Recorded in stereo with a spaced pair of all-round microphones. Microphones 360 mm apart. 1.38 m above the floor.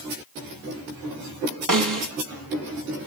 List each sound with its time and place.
1.7 s a snare drum: 55° right (ahead or behind), 1.4 m